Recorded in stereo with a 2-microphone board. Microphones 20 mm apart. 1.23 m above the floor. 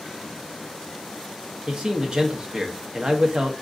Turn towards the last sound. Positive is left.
turn(degrees=-45)  # may be behind; listen again after turning